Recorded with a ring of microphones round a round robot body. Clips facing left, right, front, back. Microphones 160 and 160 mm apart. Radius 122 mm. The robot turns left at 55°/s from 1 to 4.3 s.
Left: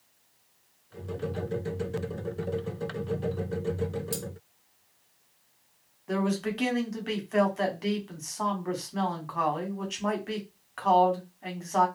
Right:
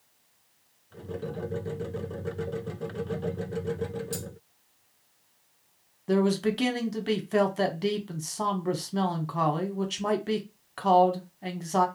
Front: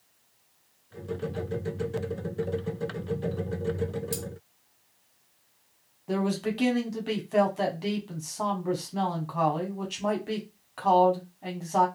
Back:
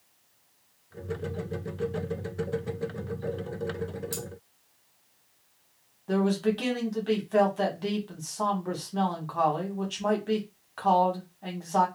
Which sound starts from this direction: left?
Cutlery clinking, at 4.1 s.